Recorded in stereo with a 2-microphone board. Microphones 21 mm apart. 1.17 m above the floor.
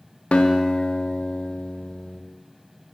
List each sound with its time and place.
0.3 s a guitar: 80° left, 0.6 m